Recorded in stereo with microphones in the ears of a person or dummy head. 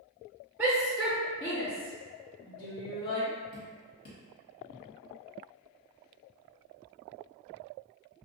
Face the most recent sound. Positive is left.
turn(degrees=30)  # may be behind; listen again after turning